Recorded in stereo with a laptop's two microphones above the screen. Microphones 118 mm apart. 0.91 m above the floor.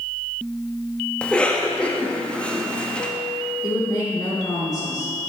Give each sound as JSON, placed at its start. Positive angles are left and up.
{"t": 1.2, "sound": "a cough", "side_deg": 10, "distance_m": 1.3}
{"t": 3.6, "sound": "a woman speaking", "side_deg": 30, "distance_m": 2.5}